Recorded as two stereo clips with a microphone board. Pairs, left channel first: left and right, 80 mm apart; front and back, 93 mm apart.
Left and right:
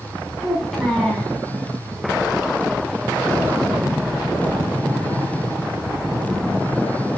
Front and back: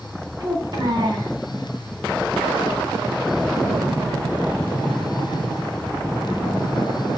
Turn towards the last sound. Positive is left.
turn(degrees=175)